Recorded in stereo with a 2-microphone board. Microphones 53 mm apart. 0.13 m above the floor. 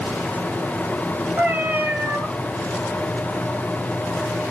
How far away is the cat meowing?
About 1.7 m.